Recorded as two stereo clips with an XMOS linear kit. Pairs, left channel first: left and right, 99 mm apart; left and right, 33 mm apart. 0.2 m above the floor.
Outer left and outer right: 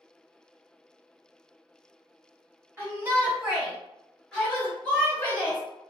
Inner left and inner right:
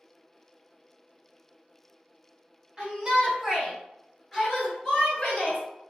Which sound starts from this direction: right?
A shout, at 2.8 s.